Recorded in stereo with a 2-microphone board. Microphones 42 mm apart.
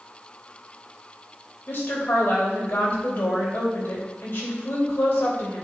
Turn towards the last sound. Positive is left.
turn(degrees=60)  # may be behind; listen again after turning